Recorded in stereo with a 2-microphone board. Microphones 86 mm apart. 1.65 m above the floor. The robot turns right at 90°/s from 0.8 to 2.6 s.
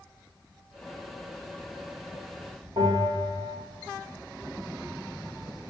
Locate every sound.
2.8 s a bell: 75° right (ahead or behind), 3 m